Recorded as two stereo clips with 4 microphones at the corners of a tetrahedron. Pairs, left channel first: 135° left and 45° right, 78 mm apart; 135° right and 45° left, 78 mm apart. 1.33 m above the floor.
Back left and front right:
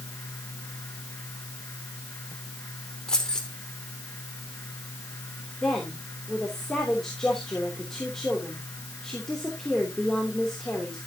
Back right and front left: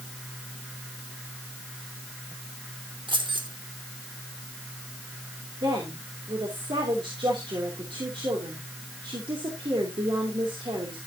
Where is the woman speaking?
50° left, 3 m.